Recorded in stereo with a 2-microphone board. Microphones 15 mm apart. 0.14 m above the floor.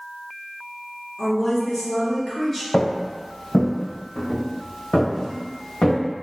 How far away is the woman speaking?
About 1.9 m.